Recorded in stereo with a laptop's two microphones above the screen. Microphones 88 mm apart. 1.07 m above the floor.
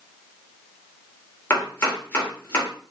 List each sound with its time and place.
1.5 s chopping: 25° left (ahead or behind), 1.9 m